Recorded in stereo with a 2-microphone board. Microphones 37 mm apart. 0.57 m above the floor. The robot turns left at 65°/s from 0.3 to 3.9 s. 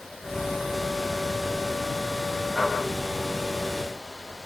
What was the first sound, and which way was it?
Only background noise.